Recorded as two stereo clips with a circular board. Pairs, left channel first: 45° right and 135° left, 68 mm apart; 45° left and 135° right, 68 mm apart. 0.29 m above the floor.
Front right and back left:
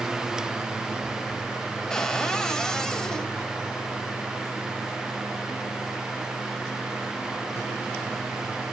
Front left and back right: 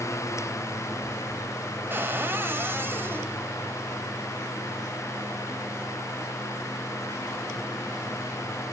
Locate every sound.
1.9 s a cupboard door: 120° right, 1.0 m